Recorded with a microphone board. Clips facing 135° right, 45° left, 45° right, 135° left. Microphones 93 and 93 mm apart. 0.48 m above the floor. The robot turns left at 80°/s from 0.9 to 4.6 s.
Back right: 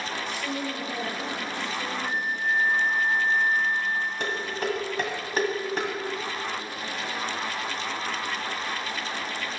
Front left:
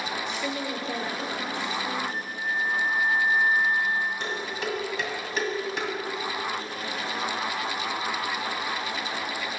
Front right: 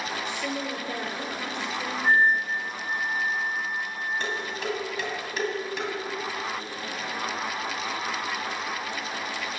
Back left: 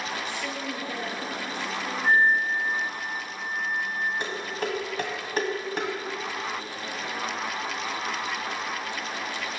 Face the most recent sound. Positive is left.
turn(degrees=180)